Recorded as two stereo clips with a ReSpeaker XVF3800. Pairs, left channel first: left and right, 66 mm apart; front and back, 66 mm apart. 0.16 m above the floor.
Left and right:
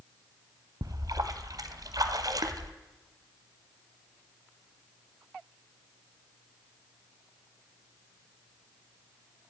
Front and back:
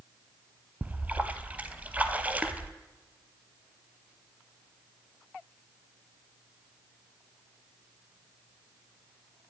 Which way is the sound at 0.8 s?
115° right.